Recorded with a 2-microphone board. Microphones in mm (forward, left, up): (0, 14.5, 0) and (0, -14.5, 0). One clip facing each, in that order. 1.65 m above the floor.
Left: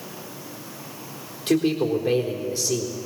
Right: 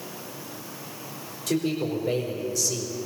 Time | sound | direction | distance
1.5 | a man speaking | 40° left (ahead or behind) | 4 m